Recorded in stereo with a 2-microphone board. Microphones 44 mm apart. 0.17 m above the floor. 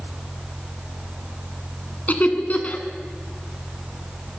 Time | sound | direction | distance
2.1 | laughter | 40° left (ahead or behind) | 1.3 m